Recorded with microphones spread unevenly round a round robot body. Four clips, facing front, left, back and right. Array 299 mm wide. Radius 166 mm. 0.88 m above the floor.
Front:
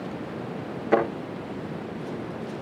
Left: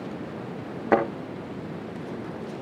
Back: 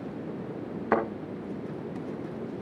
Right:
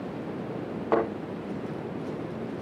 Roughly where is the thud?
Behind left.